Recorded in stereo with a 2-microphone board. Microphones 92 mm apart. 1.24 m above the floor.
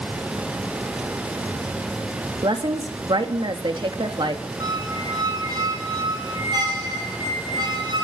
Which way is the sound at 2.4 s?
60° right (ahead or behind).